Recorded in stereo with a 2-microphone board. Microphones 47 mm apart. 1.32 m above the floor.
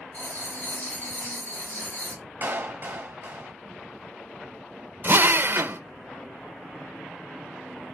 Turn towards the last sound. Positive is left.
turn(degrees=-45)  # may be behind; listen again after turning